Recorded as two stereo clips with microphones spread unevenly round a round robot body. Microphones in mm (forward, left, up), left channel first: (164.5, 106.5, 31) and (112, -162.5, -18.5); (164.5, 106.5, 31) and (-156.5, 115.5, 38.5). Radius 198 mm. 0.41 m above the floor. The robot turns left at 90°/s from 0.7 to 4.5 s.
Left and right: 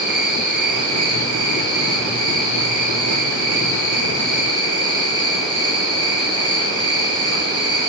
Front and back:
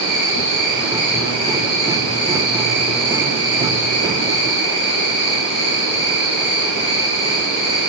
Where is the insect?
15° right, 5.5 m; by 7.9 s 5° left, 5.5 m.